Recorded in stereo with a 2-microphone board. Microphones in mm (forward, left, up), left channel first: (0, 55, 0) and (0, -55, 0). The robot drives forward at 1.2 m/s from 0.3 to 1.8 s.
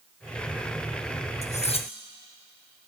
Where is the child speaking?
I don't hear a child speaking.